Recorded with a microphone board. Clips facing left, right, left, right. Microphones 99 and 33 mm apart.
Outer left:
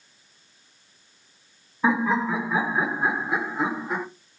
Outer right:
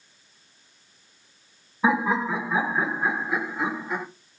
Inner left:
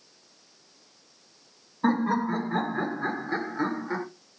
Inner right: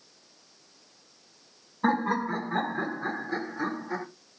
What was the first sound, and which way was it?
Laughter, 10° right (ahead or behind).